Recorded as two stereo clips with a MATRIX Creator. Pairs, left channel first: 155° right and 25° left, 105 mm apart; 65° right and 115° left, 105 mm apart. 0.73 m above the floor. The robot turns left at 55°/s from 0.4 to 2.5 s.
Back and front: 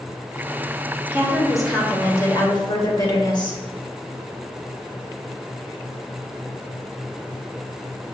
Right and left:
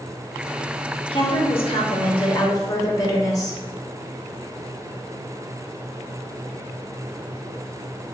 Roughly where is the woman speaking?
Ahead right.